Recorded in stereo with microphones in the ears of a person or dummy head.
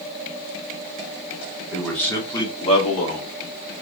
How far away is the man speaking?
About 1.1 m.